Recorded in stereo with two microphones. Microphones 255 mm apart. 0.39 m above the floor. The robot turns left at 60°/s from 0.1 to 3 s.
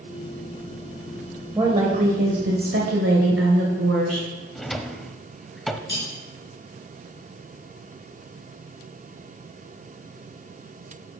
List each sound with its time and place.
1.6 s a woman speaking: 15° right, 1.4 m; by 4.3 s 100° right, 1.4 m
4.5 s a drawer: centre (ahead or behind), 0.6 m
5.9 s cutlery clinking: 40° left (ahead or behind), 3.5 m